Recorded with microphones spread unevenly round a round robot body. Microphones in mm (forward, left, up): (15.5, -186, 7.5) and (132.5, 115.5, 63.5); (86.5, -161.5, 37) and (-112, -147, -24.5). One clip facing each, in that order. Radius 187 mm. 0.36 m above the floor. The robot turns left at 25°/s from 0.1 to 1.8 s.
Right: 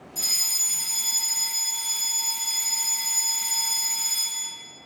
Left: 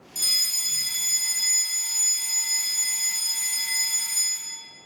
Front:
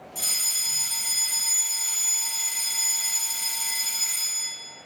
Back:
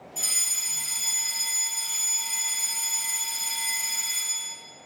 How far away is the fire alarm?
About 1.8 m.